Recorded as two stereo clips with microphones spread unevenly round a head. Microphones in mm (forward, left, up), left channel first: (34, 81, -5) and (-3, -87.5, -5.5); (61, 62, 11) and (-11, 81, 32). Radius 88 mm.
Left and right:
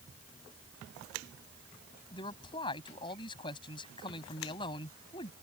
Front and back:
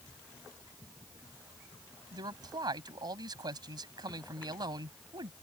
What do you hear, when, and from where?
2.1 s a man speaking: 145° left